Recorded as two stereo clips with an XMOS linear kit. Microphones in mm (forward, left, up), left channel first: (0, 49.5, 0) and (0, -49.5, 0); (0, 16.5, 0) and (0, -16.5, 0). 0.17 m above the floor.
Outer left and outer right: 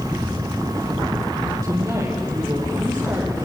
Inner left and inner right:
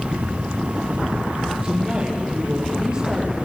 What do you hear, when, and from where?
1.6 s a woman speaking: 35° right (ahead or behind), 6 m